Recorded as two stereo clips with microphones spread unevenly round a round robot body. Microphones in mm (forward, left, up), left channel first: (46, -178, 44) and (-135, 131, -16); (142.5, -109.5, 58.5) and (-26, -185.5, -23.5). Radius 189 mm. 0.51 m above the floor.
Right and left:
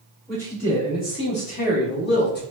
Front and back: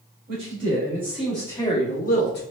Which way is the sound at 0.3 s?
150° right.